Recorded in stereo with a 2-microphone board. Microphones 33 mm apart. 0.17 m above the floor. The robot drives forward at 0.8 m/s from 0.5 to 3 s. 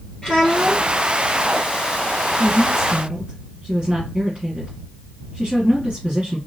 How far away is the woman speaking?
About 2 m.